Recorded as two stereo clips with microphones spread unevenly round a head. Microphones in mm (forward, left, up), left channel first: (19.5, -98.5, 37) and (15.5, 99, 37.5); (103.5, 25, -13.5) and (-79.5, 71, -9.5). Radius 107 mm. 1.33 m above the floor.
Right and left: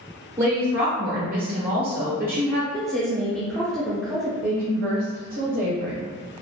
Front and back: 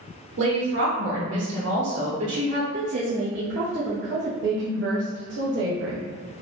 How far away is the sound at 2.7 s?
About 0.6 m.